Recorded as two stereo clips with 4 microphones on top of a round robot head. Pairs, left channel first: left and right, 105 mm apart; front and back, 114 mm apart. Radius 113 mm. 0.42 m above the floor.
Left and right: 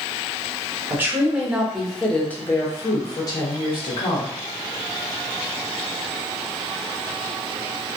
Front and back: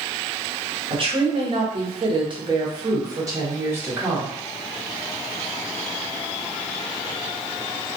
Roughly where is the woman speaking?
Behind right.